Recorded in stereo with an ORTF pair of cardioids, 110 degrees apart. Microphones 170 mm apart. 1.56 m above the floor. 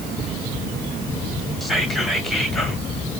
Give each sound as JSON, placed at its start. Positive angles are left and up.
{"t": 1.6, "sound": "whispering", "azimuth_deg": 0, "distance_m": 2.0}